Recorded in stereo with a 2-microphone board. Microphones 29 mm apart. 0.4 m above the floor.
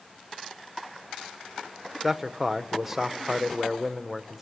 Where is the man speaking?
10° right (ahead or behind), 0.8 m.